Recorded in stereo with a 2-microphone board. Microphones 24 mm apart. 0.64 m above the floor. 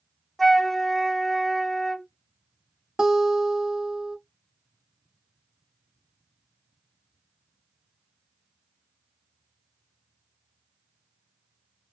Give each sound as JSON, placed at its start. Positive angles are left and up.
{"t": 0.4, "sound": "a flute", "side_deg": 5, "distance_m": 0.6}
{"t": 3.0, "sound": "a guitar", "side_deg": -35, "distance_m": 0.9}